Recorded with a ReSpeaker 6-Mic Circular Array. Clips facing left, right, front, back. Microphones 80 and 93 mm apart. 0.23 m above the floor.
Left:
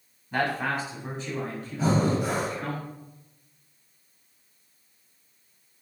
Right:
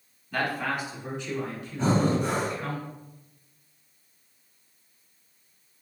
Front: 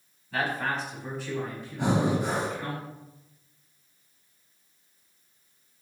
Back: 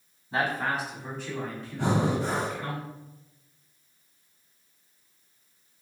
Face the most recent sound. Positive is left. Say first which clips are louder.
# even, front 1 dB
turn(degrees=20)